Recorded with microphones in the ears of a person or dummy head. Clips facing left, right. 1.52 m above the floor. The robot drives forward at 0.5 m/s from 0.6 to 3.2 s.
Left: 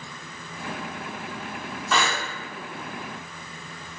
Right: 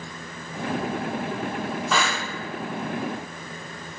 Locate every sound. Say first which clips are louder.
1.9 s breathing: left 2 dB; centre (ahead or behind), 2 m